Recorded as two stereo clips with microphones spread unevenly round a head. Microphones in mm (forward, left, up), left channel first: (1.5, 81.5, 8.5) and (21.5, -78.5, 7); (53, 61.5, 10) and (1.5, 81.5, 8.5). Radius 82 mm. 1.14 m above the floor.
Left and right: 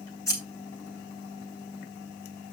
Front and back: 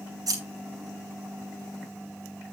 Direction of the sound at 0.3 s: 170° left.